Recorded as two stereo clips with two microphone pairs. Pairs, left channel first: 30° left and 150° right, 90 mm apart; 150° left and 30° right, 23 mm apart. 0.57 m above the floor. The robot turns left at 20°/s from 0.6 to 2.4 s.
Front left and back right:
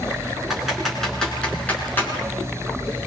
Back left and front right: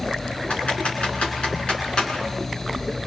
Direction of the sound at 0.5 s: 125° left.